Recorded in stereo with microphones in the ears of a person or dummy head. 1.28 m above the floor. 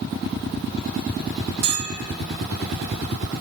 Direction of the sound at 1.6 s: 65° right (ahead or behind).